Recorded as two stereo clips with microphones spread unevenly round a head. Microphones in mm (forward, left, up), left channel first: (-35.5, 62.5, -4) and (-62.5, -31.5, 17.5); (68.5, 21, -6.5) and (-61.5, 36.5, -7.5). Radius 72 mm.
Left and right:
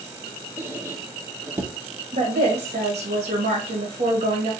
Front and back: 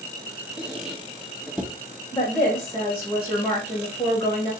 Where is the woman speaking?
80° right, 1.7 m.